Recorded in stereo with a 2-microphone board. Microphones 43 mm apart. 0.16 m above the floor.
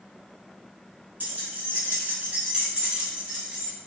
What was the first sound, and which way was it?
Keys jangling, 45° right (ahead or behind).